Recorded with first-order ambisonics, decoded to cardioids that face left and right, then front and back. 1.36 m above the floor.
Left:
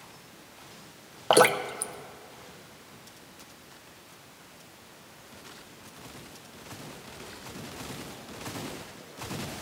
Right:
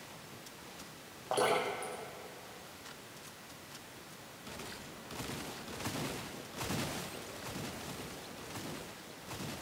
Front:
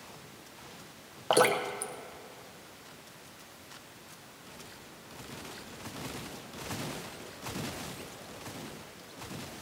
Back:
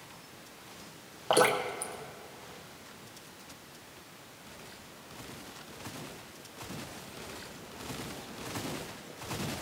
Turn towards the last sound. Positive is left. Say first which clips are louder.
# left 10 dB, even
turn(degrees=85)